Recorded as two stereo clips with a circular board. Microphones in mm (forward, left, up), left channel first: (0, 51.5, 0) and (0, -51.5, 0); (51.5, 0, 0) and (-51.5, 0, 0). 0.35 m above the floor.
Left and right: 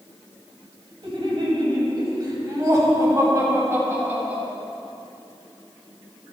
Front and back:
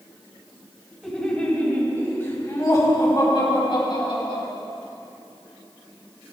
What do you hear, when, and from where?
1.0 s laughter: 85° right, 2 m; by 4.4 s 20° right, 2.5 m